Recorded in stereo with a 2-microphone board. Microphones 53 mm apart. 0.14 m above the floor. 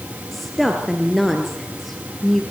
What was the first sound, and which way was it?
A woman speaking, 5° left (ahead or behind).